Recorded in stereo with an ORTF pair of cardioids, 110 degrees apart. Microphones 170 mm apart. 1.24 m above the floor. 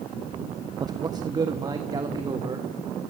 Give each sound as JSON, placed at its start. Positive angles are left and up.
{"t": 0.8, "sound": "a man speaking", "azimuth_deg": -25, "distance_m": 0.9}